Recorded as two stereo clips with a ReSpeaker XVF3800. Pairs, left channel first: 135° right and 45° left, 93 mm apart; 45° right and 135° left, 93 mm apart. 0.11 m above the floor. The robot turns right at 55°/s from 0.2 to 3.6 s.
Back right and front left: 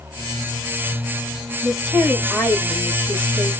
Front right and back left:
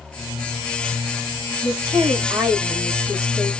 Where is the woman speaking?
130° left, 2.5 m; by 3.5 s 125° right, 2.5 m.